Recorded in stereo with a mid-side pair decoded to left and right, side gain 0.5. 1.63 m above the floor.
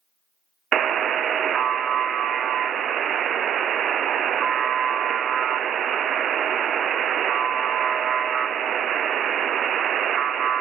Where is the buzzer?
55° right, 0.5 m.